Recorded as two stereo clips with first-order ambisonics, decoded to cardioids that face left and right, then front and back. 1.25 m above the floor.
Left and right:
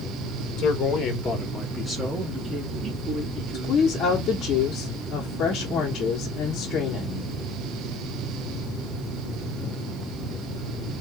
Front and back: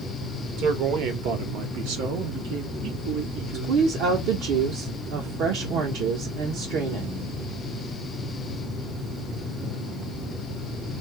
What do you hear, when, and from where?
0.6 s a man speaking: 135° left, 1.2 m; by 4.2 s 140° right, 2.5 m
3.5 s a woman speaking: 150° left, 1.0 m